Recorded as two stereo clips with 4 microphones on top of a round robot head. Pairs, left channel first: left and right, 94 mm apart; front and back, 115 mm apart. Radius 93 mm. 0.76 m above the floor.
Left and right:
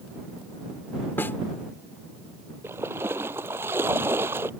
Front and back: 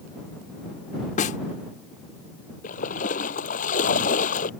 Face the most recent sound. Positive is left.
turn(degrees=-15)